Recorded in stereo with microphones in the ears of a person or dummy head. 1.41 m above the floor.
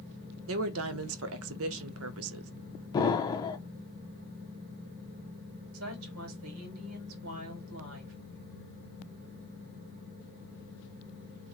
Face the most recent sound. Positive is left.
turn(degrees=-70)  # may be behind; listen again after turning